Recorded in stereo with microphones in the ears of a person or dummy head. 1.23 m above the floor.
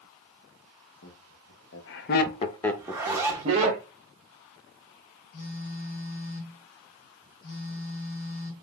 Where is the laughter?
85° left, 1.4 m; by 3.8 s 35° right (ahead or behind), 1.1 m.